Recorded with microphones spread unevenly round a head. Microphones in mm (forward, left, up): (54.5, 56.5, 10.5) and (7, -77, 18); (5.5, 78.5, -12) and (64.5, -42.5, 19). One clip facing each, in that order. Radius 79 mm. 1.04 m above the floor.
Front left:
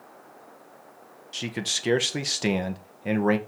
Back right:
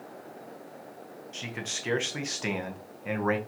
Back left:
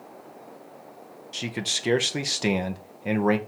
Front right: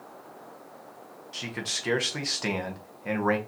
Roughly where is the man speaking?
Left.